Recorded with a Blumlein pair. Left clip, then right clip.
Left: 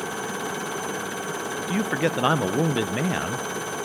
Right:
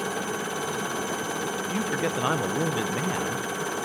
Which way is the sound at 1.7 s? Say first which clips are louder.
Left 5 dB; 15° left.